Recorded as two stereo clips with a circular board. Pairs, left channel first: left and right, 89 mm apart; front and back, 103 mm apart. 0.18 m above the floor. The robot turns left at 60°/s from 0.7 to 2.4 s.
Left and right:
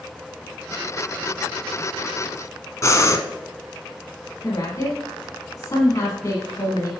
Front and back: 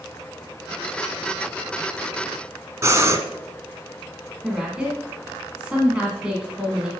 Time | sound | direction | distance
2.8 | breathing | 130° left | 0.7 m
4.4 | a woman speaking | 105° left | 1.4 m